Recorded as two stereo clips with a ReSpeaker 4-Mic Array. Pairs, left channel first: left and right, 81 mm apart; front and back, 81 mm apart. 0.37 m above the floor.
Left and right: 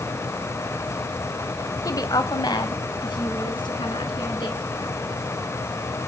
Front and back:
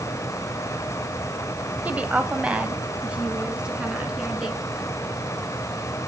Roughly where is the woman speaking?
Behind left.